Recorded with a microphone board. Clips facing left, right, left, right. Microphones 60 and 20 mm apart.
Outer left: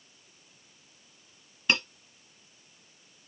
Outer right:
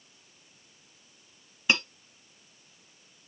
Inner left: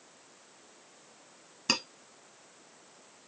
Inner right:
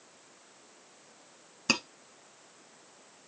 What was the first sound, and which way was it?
Cutlery clinking, 10° right (ahead or behind).